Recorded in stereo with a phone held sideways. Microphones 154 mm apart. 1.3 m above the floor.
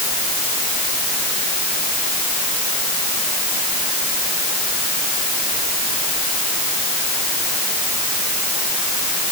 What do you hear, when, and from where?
Only background noise.